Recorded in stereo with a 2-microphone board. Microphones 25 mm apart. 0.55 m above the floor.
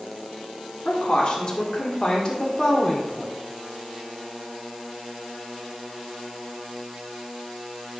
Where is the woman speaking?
45° left (ahead or behind), 1.9 m; by 3.3 s 25° left (ahead or behind), 1.9 m.